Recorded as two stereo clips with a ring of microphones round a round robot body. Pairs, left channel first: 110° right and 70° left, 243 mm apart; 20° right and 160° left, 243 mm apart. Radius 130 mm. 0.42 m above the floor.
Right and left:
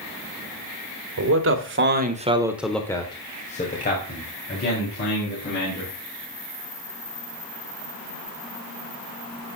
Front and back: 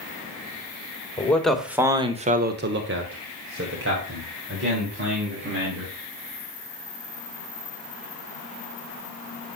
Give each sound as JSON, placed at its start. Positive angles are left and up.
{"t": 1.2, "sound": "a man speaking", "azimuth_deg": 60, "distance_m": 1.9}